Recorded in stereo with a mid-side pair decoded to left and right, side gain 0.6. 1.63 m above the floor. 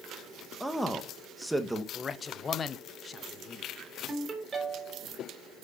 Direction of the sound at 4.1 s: 20° right.